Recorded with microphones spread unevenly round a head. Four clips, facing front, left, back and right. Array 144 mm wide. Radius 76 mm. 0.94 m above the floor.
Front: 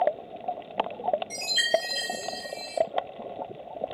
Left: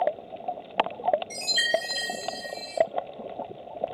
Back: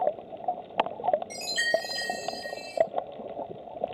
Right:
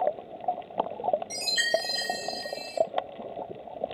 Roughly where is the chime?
Behind right.